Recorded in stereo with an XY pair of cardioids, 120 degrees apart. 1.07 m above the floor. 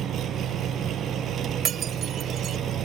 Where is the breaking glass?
55° right.